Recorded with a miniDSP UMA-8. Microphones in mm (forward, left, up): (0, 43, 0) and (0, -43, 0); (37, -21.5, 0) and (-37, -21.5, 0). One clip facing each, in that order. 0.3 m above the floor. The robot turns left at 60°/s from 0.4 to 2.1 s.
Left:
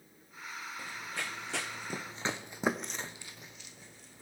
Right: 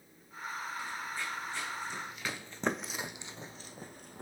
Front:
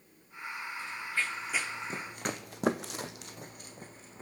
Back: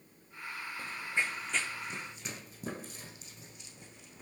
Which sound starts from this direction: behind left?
Running footsteps, at 0.8 s.